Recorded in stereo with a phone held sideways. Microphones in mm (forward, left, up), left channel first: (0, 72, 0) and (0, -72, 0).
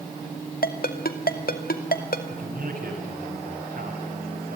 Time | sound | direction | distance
0.6 | a ringtone | 75° left (ahead or behind) | 2 m
2.3 | a man speaking | 70° right (ahead or behind) | 8 m